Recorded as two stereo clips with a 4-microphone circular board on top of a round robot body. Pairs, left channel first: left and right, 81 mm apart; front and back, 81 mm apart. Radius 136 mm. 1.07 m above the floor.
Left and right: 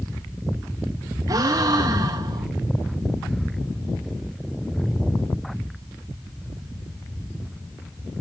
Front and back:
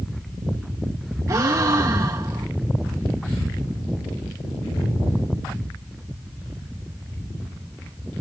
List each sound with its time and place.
1.3 s a gasp: 130° right, 0.9 m